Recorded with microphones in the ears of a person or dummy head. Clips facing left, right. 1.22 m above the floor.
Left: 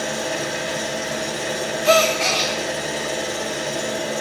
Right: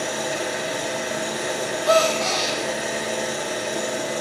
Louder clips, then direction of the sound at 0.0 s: Left 1 dB; 10° left (ahead or behind).